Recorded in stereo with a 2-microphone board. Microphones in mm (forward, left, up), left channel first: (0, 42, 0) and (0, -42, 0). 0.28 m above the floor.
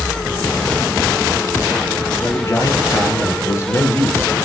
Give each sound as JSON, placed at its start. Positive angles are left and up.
{"t": 2.2, "sound": "a man speaking", "side_deg": 35, "distance_m": 4.5}